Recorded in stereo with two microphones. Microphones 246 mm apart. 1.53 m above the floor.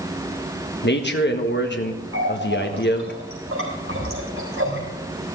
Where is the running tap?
65° right (ahead or behind), 4 m.